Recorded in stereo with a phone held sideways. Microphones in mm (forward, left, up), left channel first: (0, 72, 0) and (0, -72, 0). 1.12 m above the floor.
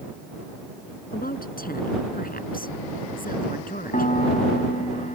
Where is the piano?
60° left (ahead or behind).